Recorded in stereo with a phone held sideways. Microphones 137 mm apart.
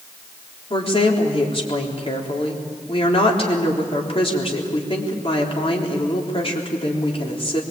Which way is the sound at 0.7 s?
40° left (ahead or behind).